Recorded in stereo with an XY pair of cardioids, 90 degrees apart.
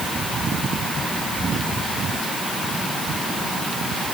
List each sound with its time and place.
Only background noise.